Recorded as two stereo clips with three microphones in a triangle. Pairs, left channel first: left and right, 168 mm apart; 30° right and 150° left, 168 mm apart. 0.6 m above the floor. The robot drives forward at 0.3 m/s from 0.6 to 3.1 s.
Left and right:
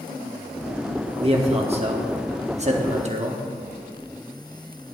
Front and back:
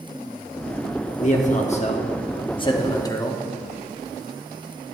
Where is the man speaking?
45° right, 1.1 m; by 3.4 s 90° right, 1.0 m.